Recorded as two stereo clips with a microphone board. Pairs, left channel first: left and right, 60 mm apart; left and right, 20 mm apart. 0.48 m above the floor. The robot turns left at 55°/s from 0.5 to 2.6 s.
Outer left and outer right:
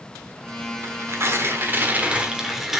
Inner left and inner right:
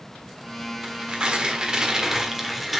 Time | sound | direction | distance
0.8 | tearing paper | 75° right | 1.3 m